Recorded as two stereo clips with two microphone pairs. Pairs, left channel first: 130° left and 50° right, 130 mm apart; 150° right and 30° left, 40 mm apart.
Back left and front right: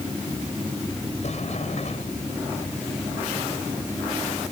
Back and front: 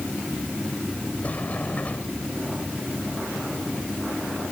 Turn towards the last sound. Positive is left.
turn(degrees=160)